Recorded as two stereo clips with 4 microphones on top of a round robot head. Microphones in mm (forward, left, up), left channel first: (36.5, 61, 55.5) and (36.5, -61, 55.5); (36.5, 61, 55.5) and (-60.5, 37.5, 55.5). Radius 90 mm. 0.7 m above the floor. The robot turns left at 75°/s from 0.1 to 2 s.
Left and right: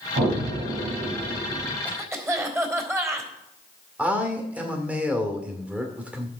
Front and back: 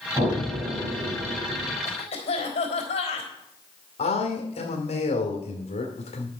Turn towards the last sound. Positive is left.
turn(degrees=-10)